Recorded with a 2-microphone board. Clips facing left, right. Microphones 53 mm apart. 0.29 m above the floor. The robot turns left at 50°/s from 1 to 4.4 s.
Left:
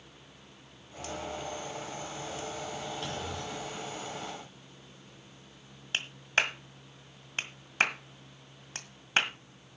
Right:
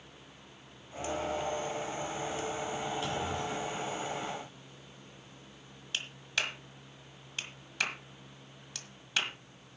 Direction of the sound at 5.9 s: 40° left (ahead or behind).